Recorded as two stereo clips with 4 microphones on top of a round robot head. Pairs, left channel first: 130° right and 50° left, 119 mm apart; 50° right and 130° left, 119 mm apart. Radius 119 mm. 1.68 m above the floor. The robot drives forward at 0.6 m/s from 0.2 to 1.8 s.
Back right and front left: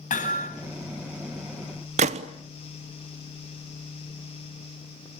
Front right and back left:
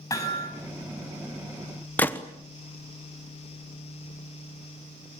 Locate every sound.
0.1 s hammering: 115° right, 9 m; by 0.5 s 120° right, 9 m
2.0 s a gunshot: 25° left, 1.0 m